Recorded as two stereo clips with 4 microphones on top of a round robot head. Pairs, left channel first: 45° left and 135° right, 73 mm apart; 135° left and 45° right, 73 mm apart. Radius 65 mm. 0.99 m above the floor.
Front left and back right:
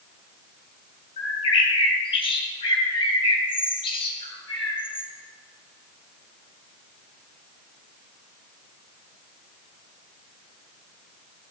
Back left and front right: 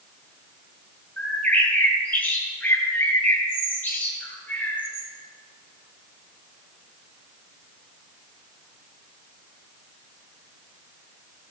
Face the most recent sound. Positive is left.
turn(degrees=70)